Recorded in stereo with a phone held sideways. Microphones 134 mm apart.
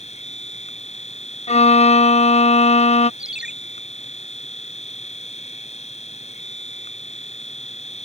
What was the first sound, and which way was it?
A machine running, 55° left (ahead or behind).